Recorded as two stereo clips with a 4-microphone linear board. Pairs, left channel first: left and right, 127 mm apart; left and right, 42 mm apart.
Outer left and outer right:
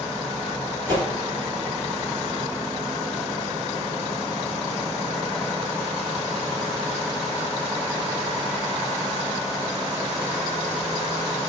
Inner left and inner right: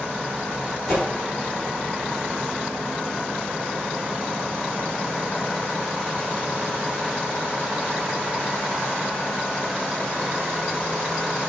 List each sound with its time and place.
0.9 s a whoosh: 10° left (ahead or behind), 1.9 m